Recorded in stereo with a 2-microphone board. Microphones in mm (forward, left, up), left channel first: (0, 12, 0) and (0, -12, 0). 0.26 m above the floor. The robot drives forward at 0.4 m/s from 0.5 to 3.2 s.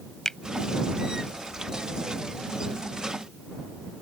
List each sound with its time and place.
0.2 s a finger snap: 20° left (ahead or behind)